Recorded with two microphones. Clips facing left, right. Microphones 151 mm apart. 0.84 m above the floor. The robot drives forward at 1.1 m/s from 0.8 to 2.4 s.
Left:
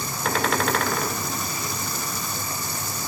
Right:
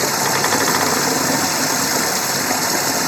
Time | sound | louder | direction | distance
0.0 | running water | right 6 dB | 80° right | ?